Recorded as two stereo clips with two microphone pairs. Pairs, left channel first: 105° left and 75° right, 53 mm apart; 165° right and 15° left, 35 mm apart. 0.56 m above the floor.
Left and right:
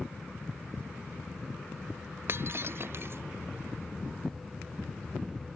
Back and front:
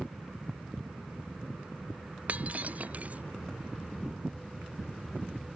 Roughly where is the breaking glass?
Ahead right.